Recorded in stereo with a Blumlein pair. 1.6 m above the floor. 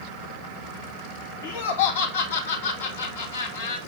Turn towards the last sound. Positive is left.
turn(degrees=65)